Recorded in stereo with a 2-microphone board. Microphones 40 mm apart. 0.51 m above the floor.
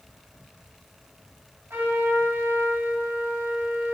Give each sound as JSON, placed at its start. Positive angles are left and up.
{"t": 1.7, "sound": "a trumpet", "side_deg": -65, "distance_m": 4.0}